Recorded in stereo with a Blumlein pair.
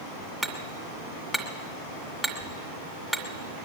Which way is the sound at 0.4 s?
5° left.